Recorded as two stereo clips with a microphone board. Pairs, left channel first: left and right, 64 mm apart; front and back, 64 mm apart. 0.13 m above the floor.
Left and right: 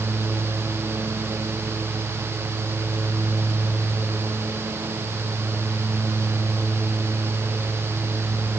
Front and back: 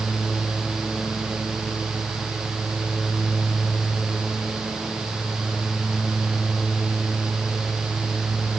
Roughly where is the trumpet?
No trumpet in this recording.